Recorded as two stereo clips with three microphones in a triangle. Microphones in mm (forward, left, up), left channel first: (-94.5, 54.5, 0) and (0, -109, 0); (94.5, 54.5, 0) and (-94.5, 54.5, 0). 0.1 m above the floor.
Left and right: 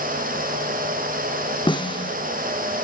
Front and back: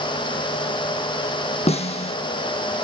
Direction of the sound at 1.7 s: 60° left.